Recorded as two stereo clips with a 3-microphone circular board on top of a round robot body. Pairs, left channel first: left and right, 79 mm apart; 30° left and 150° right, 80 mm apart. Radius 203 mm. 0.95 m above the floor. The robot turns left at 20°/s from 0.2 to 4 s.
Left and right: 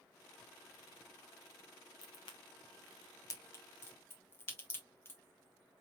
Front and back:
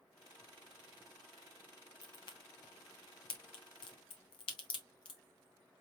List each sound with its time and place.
2.0 s a crack: 65° left, 0.7 m; by 5.2 s 25° left, 0.7 m